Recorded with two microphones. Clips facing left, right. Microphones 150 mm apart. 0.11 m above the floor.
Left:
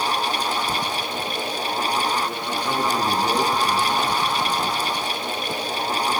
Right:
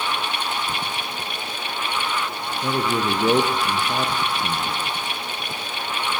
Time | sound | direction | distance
2.6 | a man speaking | 65° right (ahead or behind) | 6 m